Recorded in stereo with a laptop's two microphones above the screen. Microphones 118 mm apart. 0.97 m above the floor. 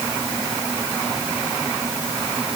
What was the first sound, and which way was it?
Only background noise.